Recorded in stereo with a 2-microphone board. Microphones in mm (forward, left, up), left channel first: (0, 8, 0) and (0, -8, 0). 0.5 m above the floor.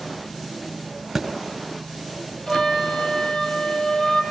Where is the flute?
50° left (ahead or behind), 7 m.